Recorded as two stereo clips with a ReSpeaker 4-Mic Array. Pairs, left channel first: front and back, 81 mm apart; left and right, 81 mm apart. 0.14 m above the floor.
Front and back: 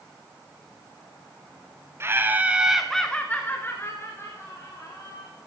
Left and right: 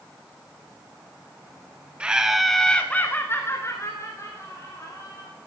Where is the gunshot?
No gunshot in this recording.